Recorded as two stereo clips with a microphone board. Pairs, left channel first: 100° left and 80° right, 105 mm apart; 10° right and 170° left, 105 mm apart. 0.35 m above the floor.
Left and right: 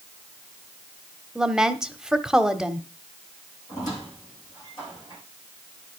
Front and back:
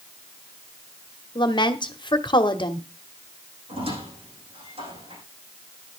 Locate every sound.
1.4 s a woman speaking: 5° left, 1.2 m
3.7 s a squeak: 155° left, 8.5 m